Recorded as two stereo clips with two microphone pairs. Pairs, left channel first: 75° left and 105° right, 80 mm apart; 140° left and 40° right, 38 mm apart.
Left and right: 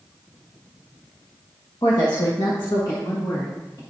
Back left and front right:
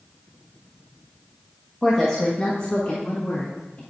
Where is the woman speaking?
60° left, 1.0 m; by 3.8 s 100° left, 1.9 m.